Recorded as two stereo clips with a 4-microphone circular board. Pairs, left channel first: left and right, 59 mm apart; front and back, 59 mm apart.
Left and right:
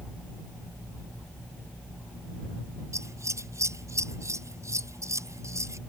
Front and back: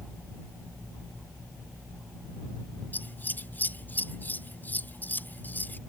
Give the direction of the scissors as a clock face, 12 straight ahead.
2 o'clock.